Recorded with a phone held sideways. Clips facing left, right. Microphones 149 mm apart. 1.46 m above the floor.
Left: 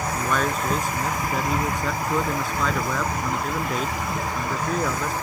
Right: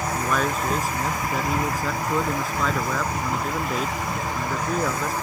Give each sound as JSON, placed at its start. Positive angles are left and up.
{"t": 0.1, "sound": "a man speaking", "side_deg": 0}